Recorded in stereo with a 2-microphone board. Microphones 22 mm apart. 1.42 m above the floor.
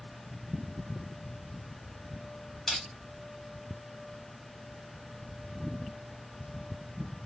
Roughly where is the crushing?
Left.